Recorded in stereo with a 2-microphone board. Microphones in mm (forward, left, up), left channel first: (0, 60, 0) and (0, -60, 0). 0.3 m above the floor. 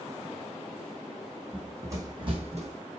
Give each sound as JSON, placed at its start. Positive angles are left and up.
{"t": 1.5, "sound": "running footsteps", "side_deg": -10, "distance_m": 1.2}